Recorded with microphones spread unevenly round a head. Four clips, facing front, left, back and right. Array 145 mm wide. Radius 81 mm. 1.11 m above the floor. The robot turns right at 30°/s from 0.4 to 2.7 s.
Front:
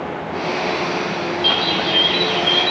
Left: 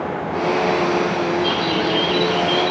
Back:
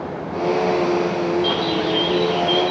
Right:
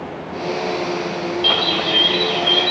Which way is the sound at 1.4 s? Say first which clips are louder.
Left 2 dB, back 1 dB; 80° right.